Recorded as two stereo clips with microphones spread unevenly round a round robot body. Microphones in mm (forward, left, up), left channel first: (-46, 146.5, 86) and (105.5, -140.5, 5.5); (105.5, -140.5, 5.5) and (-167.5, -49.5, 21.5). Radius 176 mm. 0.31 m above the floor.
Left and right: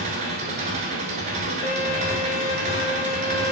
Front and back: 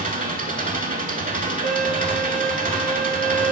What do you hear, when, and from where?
0.0 s an engine running: 135° right, 1.0 m
1.6 s a violin: 140° left, 1.3 m